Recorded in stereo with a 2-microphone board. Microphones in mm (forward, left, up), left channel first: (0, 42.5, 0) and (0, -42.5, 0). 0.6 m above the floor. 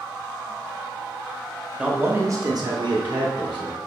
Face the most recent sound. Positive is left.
turn(degrees=-70)  # may be behind; listen again after turning